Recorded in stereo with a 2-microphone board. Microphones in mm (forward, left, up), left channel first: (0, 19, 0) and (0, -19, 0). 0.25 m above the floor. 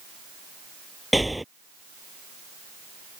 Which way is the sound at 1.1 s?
5° right (ahead or behind).